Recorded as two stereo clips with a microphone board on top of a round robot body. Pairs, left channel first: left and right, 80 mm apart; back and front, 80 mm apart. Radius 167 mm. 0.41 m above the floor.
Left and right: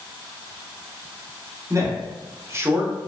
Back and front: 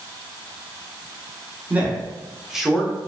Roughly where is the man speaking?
Ahead right.